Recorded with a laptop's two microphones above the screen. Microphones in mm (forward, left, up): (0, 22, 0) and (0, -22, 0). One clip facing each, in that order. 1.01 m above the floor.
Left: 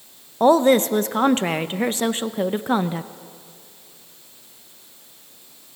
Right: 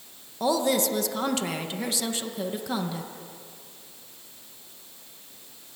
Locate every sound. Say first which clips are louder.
0.4 s a woman speaking: left 9 dB; 40° left (ahead or behind), 0.5 m